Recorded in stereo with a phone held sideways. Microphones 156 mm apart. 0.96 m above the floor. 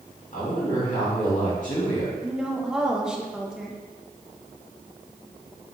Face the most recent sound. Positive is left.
turn(degrees=-5)  # may be behind; listen again after turning